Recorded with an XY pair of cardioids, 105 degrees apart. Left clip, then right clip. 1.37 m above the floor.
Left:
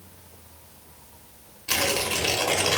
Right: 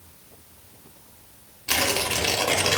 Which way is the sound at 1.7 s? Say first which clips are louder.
Right 1 dB; 20° right.